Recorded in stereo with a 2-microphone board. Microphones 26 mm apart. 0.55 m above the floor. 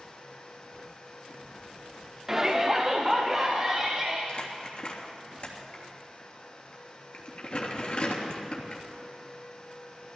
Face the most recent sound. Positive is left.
turn(degrees=50)  # may be behind; listen again after turning